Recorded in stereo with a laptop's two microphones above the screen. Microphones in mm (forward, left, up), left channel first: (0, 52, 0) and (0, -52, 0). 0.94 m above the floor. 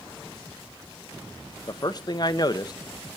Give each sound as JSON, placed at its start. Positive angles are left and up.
{"t": 1.7, "sound": "a man speaking", "side_deg": 40, "distance_m": 0.6}